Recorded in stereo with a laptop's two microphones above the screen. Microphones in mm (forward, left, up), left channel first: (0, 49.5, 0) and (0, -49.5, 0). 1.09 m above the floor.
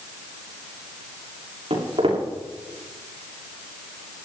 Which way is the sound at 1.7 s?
70° right (ahead or behind).